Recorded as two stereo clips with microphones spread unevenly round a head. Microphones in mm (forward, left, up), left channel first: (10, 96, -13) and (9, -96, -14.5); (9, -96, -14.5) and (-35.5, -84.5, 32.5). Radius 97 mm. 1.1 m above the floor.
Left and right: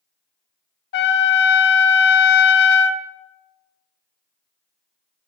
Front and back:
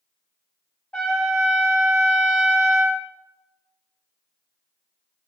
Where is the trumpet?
105° left, 0.6 m.